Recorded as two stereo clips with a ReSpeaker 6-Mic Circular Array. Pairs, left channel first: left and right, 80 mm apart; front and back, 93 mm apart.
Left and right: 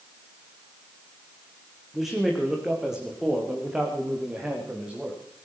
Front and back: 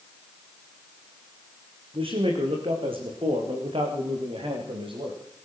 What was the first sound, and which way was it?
A man speaking, 175° right.